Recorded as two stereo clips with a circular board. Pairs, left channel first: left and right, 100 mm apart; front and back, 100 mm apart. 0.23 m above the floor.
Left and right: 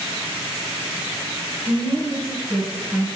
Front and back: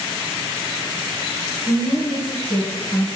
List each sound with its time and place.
1.7 s a woman speaking: 60° right, 2 m; by 3.1 s 40° right, 1.7 m